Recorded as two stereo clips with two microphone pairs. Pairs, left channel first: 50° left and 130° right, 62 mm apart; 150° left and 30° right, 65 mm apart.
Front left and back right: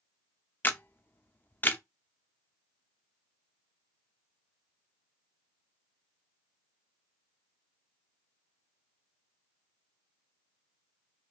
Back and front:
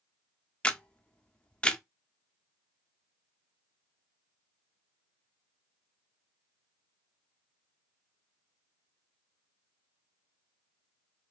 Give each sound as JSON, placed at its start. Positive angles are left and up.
{"t": 0.6, "sound": "a camera shutter", "azimuth_deg": 85, "distance_m": 0.5}